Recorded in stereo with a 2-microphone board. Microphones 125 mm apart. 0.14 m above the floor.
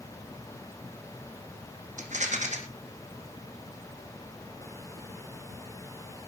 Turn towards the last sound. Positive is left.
turn(degrees=-75)  # may be behind; listen again after turning